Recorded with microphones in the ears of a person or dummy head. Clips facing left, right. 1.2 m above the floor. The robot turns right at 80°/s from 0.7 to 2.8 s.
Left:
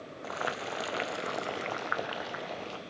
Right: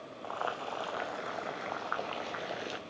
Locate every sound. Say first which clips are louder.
0.2 s boiling: left 1 dB; 40° left, 0.6 m; by 2.8 s 150° right, 0.6 m